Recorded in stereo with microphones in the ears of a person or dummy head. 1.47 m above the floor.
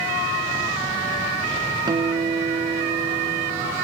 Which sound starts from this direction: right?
A guitar, at 1.9 s.